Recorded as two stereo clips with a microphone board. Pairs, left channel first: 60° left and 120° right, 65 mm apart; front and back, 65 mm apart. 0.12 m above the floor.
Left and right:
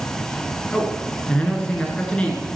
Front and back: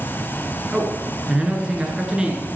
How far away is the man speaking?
About 1.8 m.